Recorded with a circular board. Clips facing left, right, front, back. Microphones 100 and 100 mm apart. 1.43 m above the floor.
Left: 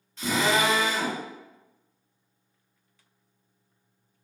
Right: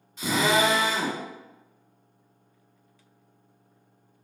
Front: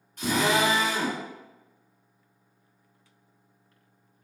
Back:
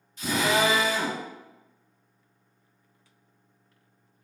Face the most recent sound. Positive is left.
turn(degrees=-15)